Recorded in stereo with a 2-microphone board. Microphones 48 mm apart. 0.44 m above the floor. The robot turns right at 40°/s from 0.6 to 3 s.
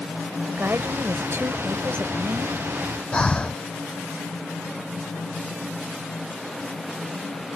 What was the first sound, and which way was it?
A woman speaking, 135° right.